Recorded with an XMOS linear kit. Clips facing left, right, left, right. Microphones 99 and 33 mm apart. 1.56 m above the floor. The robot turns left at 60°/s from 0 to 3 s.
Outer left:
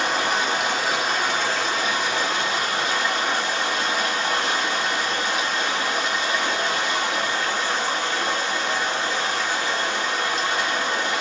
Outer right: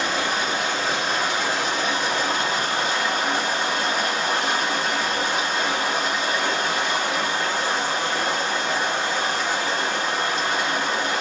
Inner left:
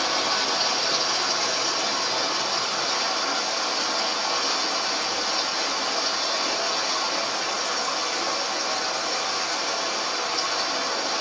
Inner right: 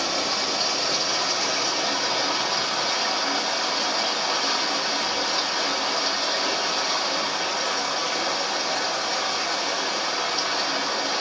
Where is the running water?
70° left, 2.0 m; by 11.2 s 110° right, 2.0 m.